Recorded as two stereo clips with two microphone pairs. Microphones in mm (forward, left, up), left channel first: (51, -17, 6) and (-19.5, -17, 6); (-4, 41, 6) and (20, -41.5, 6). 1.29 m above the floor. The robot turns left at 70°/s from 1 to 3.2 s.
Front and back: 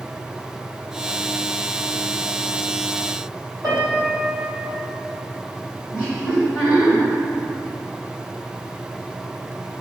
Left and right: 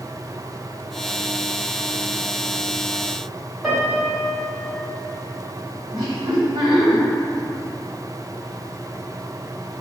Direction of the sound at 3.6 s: 160° right.